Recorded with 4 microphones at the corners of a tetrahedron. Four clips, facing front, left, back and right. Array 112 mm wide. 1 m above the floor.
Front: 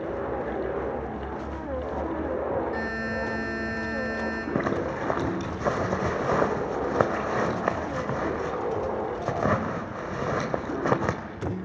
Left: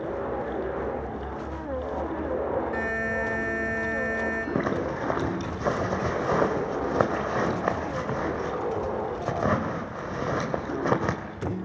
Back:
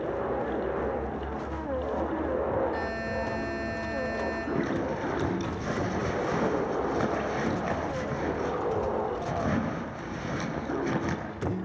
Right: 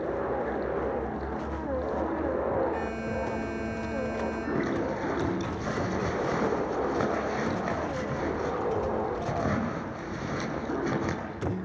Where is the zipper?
40° left, 3 m.